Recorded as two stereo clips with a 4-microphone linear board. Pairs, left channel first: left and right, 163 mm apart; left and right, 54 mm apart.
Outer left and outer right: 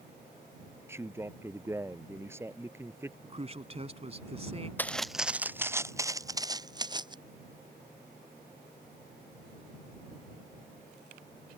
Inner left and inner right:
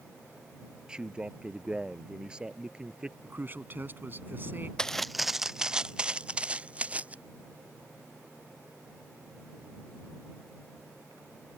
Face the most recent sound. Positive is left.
turn(degrees=-25)  # may be behind; listen again after turning